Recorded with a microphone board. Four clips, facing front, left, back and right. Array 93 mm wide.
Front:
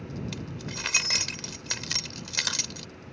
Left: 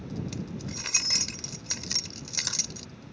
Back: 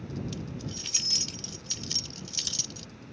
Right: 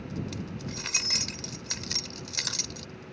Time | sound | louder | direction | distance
0.3 | keys jangling | even, front 1 dB | 5° left | ?